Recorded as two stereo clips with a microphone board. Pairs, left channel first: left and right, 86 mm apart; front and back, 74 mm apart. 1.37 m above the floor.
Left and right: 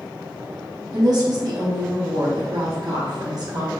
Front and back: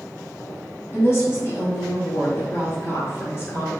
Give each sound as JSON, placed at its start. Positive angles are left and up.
{"t": 0.9, "sound": "a woman speaking", "azimuth_deg": -55, "distance_m": 0.7}